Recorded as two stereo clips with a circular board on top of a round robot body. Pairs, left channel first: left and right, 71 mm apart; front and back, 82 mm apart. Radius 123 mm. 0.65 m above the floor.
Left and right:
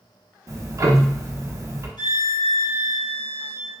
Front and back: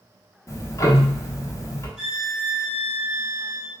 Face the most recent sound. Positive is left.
turn(degrees=95)